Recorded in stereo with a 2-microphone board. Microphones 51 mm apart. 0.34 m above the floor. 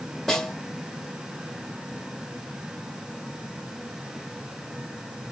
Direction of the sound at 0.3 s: 5° left (ahead or behind).